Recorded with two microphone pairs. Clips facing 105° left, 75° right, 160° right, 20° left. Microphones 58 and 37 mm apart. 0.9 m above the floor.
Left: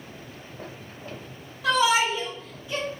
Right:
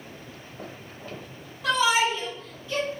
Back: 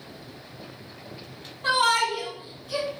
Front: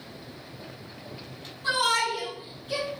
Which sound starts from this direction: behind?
A shout, at 1.6 s.